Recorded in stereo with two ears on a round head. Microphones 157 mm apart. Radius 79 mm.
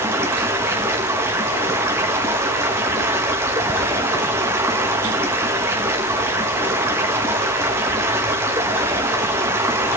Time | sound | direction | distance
0.0 | running water | 15° right (ahead or behind) | 1.3 m